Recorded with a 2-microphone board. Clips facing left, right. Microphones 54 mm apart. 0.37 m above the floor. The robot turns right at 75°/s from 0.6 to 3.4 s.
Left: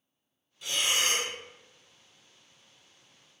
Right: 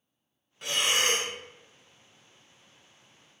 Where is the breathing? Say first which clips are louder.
Right 2 dB; 100° right, 0.5 m; by 1.3 s 45° right, 0.5 m.